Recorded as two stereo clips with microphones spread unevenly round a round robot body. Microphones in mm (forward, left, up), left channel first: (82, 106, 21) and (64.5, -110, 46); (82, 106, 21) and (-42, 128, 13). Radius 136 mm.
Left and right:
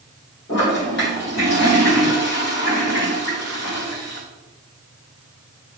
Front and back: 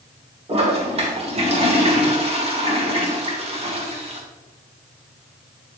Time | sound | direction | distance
0.5 | a toilet flushing | 135° left | 2.5 m